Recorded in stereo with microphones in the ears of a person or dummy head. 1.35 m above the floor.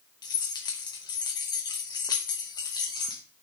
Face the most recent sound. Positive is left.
turn(degrees=20)  # may be behind; listen again after turning